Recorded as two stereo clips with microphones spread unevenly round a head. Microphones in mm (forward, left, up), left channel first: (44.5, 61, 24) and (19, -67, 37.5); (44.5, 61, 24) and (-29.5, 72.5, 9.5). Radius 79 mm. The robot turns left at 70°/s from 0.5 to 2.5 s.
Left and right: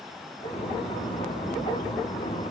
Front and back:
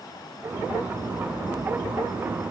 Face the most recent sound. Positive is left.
No sound to turn to.